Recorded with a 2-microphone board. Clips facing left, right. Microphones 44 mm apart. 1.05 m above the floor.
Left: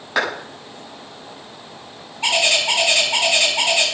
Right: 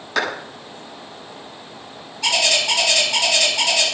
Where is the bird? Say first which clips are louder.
Left 1 dB; 25° left (ahead or behind), 7 m.